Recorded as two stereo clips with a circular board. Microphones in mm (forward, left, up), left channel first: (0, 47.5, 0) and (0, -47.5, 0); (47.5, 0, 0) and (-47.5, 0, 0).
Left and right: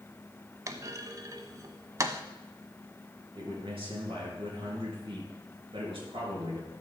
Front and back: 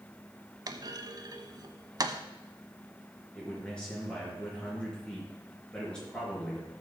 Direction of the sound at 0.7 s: 140° right.